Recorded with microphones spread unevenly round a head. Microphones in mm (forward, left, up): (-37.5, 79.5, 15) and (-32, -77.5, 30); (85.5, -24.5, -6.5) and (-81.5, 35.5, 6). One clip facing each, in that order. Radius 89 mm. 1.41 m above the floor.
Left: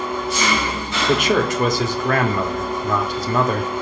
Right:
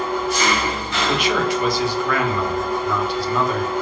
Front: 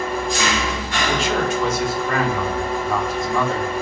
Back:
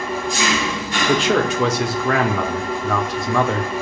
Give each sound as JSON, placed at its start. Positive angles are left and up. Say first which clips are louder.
{"t": 0.0, "sound": "an engine running", "louder": "right 2 dB, even", "azimuth_deg": 5, "distance_m": 3.5}
{"t": 1.1, "sound": "a man speaking", "louder": "left 3 dB, back 4 dB", "azimuth_deg": 130, "distance_m": 1.0}